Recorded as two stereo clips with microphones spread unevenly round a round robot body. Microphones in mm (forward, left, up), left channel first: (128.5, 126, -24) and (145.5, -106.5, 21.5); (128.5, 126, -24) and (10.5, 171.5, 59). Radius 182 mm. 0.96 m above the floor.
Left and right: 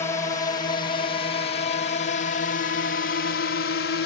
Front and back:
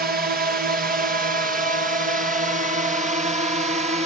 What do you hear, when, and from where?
0.0 s a drone: 155° left; by 4.1 s 105° left